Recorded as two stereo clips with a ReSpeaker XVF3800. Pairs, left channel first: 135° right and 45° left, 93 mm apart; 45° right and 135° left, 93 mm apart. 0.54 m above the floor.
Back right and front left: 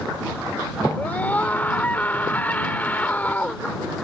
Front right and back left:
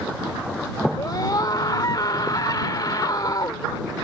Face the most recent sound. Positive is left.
turn(degrees=-70)